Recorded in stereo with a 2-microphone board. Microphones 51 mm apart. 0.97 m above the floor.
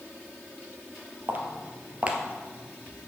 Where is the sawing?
No sawing in this recording.